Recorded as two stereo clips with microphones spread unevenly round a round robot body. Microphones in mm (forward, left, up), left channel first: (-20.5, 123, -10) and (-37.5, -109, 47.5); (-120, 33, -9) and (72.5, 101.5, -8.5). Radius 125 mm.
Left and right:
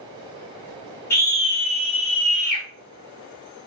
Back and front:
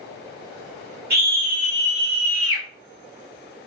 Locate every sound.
1.1 s a scream: 30° left, 1.3 m; by 2.6 s 85° left, 1.5 m